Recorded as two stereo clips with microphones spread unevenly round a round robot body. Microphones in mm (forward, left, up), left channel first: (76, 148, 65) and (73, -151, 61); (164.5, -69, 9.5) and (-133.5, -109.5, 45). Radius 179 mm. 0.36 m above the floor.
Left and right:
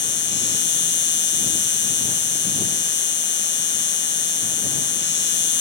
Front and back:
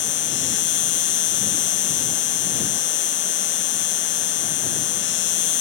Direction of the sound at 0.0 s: 45° left.